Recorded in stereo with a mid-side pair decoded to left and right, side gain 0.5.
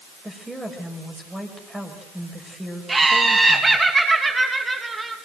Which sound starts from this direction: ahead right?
Laughter, at 2.9 s.